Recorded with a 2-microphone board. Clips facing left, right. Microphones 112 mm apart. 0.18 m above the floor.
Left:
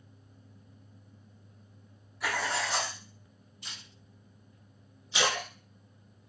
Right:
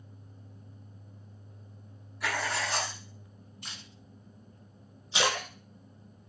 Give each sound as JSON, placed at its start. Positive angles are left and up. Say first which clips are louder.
{"t": 2.2, "sound": "writing", "louder": "even", "side_deg": 5, "distance_m": 1.1}
{"t": 3.6, "sound": "a camera shutter", "louder": "right 1 dB", "side_deg": -50, "distance_m": 1.8}
{"t": 5.1, "sound": "a splash", "louder": "right 1 dB", "side_deg": -30, "distance_m": 1.1}